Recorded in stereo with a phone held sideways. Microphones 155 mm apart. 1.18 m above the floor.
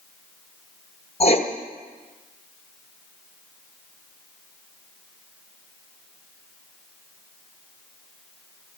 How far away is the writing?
About 1.1 m.